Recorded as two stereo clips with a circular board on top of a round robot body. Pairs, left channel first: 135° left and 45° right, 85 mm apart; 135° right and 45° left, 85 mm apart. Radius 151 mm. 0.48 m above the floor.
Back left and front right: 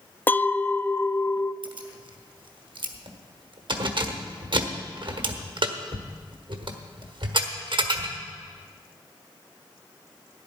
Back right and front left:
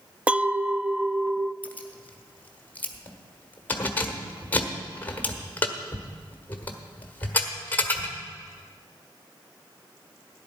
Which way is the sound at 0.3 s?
100° left.